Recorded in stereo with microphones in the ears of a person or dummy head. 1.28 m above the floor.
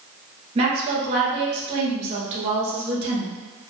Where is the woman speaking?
35° right (ahead or behind), 1.1 m.